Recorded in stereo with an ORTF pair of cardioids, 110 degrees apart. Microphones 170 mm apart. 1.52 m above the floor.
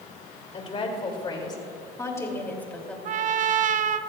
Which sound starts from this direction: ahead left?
A woman speaking, at 0.5 s.